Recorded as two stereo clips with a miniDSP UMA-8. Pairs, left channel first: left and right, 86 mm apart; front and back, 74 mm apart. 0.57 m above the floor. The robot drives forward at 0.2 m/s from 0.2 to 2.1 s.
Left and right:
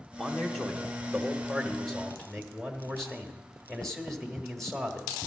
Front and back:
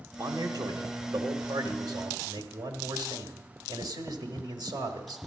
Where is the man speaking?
175° left, 1.0 m.